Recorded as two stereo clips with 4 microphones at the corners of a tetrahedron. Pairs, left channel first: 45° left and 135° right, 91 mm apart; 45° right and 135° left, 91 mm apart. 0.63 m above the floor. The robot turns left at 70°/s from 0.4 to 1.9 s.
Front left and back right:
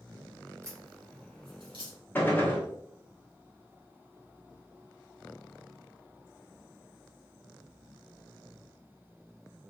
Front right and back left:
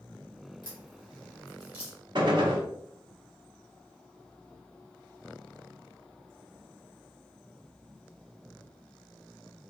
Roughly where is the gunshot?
Behind left.